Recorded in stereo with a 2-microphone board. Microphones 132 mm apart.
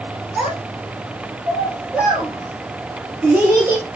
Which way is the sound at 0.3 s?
5° right (ahead or behind).